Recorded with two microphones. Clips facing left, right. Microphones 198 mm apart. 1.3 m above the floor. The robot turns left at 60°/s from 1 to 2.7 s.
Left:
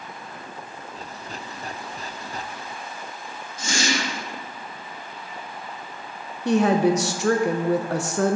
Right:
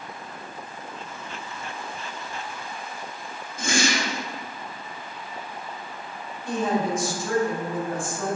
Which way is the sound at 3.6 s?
55° right (ahead or behind).